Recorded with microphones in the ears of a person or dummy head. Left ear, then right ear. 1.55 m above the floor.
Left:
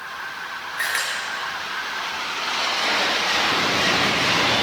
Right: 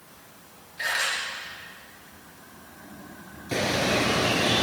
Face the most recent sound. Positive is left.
turn(degrees=-60)  # may be behind; listen again after turning